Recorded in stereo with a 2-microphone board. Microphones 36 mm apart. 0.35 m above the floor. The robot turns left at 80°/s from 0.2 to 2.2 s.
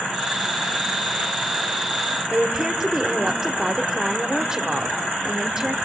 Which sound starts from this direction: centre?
A woman speaking, at 2.3 s.